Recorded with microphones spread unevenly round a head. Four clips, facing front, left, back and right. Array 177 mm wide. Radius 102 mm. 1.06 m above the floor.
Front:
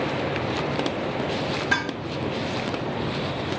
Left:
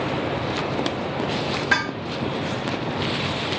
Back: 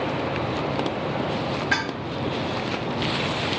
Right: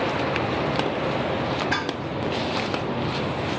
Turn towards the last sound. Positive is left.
turn(degrees=25)